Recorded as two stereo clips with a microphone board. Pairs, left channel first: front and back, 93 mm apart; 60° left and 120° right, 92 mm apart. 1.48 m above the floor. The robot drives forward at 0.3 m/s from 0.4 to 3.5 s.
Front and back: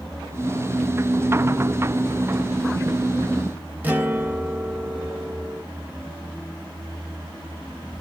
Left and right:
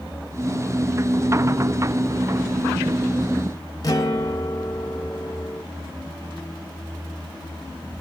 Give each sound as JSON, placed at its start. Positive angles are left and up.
{"t": 3.8, "sound": "a guitar", "azimuth_deg": 110, "distance_m": 0.6}